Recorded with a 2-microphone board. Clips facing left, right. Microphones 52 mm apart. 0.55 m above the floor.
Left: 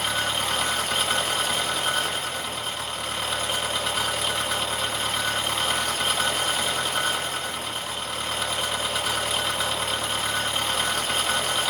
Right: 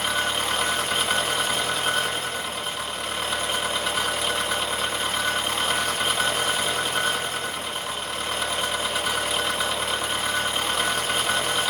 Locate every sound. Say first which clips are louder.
0.0 s an engine running: right 1 dB; 5° right (ahead or behind), 0.8 m